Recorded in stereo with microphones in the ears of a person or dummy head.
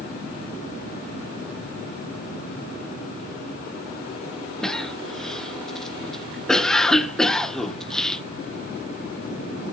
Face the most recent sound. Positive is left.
turn(degrees=0)  # may be behind; listen again after turning